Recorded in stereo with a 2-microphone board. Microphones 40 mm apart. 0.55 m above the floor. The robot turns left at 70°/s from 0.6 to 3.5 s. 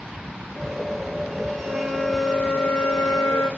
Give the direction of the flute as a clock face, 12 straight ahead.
5 o'clock.